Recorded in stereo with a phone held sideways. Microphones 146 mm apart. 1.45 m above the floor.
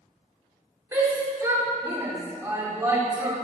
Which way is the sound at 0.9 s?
20° right (ahead or behind).